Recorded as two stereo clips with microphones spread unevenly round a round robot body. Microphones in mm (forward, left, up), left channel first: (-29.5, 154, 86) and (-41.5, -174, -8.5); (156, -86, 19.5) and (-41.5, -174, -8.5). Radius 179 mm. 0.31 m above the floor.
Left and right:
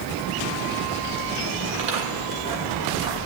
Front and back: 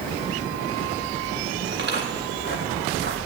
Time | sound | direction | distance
1.7 | footsteps | 115° right | 6.5 m